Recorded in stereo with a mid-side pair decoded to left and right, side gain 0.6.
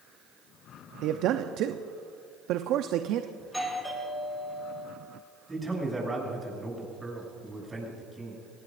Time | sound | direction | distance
1.0 | a man speaking | 65° right | 0.7 m
3.4 | a doorbell | 5° right | 6.5 m
5.5 | a man speaking | 15° right | 7.5 m